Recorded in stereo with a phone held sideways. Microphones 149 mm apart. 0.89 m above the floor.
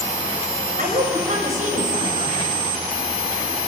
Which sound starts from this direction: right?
A woman speaking, at 0.8 s.